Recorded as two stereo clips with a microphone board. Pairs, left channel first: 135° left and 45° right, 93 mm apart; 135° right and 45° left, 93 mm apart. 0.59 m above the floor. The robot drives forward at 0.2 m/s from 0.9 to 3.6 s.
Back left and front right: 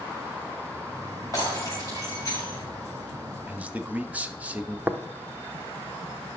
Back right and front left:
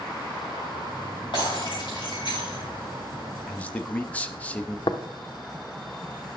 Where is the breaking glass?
170° right, 4 m.